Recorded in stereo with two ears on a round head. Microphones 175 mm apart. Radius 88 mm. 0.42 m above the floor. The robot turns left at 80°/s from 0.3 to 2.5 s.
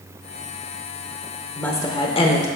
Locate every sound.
1.6 s a woman speaking: 170° left, 0.9 m; by 2.5 s 100° left, 0.9 m